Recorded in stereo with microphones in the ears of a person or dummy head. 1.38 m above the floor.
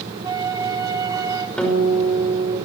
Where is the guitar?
5° left (ahead or behind), 5.5 m.